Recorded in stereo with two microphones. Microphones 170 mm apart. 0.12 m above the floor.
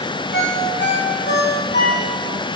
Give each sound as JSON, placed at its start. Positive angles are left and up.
{"t": 0.3, "sound": "a ringtone", "side_deg": 75, "distance_m": 4.5}